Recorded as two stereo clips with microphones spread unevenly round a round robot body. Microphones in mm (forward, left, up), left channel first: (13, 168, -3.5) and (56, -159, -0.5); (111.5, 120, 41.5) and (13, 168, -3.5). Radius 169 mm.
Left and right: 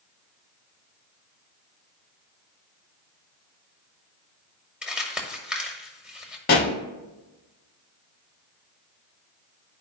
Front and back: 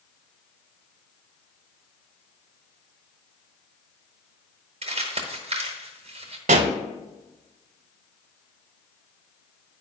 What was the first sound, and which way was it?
Crumpling, 170° right.